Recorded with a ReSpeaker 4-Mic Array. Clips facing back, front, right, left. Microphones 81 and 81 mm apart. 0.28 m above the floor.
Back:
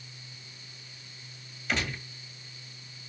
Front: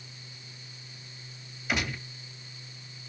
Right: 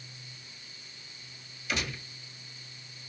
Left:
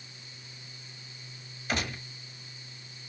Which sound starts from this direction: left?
A gunshot, at 1.7 s.